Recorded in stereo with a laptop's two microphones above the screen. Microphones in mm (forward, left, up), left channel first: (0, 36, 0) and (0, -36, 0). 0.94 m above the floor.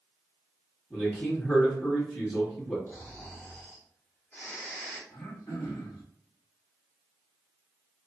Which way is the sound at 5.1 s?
45° left (ahead or behind).